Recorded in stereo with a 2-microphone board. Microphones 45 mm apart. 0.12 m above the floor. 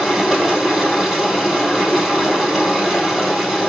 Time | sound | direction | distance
0.0 | running water | centre (ahead or behind) | 2.5 m